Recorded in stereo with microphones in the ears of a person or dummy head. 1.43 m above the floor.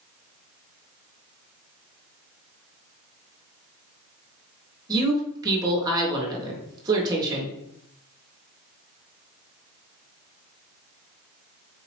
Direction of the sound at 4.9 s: 25° right (ahead or behind).